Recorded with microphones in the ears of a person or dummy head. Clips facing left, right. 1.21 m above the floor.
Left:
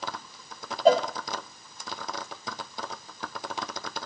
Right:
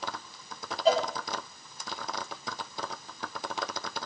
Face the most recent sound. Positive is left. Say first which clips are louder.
# left 5 dB
turn(degrees=40)  # may be behind; listen again after turning